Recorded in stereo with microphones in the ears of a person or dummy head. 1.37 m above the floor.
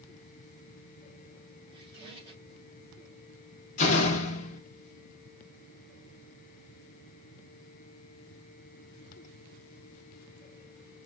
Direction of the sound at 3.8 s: 40° left (ahead or behind).